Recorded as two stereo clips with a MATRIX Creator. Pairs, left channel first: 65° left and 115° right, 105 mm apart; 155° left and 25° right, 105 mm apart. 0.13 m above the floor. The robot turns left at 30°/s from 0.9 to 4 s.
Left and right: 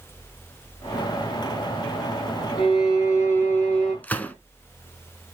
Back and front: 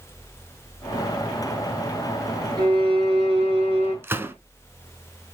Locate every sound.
2.6 s a violin: 20° left, 5 m; by 3.9 s 20° right, 5 m
4.0 s a gunshot: 10° left, 0.9 m